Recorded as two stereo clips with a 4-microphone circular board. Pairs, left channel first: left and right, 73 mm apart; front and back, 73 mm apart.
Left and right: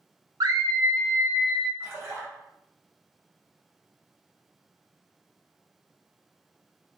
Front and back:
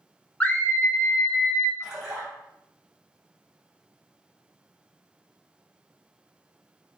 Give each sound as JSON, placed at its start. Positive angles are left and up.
{"t": 0.4, "sound": "a scream", "azimuth_deg": -70, "distance_m": 0.7}
{"t": 1.8, "sound": "a splash", "azimuth_deg": -110, "distance_m": 1.1}